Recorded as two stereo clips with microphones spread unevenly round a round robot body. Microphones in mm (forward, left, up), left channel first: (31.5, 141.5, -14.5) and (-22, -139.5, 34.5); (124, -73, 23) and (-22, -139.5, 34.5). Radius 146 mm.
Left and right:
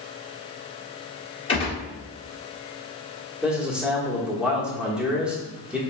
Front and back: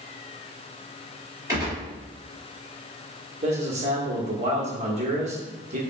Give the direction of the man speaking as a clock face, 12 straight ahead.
6 o'clock.